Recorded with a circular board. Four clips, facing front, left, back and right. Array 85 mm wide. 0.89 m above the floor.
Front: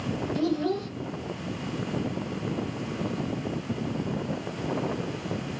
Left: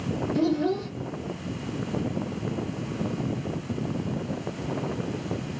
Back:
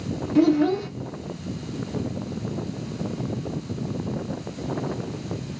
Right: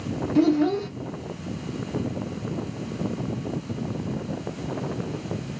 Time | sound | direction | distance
0.3 | a child speaking | 150° right | 0.8 m